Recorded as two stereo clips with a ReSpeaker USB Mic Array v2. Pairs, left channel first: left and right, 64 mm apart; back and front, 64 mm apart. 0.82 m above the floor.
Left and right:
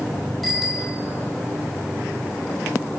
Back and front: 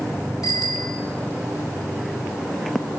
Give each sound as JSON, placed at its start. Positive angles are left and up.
{"t": 0.4, "sound": "a bicycle bell", "azimuth_deg": 180, "distance_m": 3.0}